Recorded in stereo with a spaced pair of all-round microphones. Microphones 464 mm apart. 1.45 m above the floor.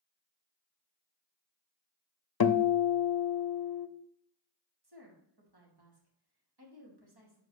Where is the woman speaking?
55° right (ahead or behind), 2.5 m.